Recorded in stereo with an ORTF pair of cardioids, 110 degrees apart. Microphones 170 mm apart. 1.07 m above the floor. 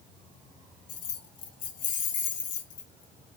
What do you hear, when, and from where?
0.9 s keys jangling: 55° left, 0.7 m